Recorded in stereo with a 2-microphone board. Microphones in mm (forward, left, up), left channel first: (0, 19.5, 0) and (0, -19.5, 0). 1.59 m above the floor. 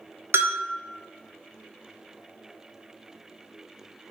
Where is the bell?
85° right, 0.5 m.